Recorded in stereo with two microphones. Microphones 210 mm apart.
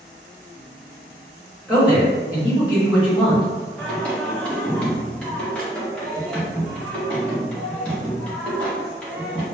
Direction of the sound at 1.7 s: 5° right (ahead or behind).